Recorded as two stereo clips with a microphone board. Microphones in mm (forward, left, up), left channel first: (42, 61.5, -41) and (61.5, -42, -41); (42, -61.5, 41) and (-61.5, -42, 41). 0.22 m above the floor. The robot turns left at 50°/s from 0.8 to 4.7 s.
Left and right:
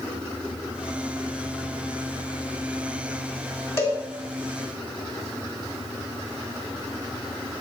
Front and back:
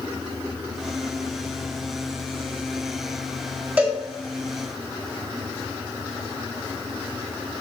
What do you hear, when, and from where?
3.8 s a cowbell: 120° left, 1.8 m; by 4.0 s 110° left, 1.8 m